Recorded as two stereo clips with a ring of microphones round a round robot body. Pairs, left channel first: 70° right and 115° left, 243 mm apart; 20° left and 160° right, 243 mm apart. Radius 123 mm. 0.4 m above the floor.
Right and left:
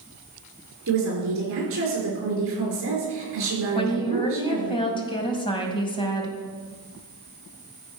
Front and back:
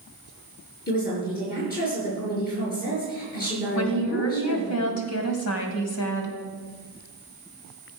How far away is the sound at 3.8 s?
About 2 m.